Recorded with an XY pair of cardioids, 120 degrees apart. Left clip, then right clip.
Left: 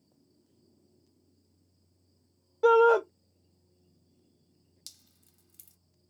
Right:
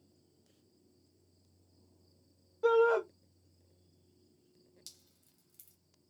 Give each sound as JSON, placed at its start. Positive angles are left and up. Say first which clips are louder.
{"t": 2.6, "sound": "a shout", "louder": "left 6 dB", "azimuth_deg": 45, "distance_m": 0.6}
{"t": 4.9, "sound": "dripping", "louder": "left 5 dB", "azimuth_deg": 30, "distance_m": 0.6}